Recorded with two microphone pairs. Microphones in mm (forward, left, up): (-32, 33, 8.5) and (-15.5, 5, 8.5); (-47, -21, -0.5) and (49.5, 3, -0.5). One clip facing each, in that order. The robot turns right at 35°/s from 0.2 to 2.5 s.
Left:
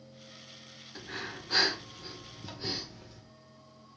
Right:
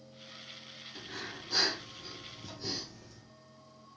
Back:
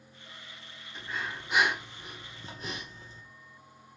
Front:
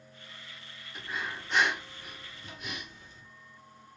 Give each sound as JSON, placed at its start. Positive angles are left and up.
{"t": 0.9, "sound": "breathing", "azimuth_deg": 95, "distance_m": 1.9}